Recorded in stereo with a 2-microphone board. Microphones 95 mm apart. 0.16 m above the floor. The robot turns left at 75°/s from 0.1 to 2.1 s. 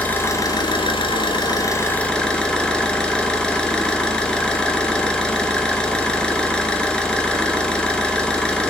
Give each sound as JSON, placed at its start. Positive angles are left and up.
{"t": 0.0, "sound": "an engine running", "azimuth_deg": 160, "distance_m": 1.0}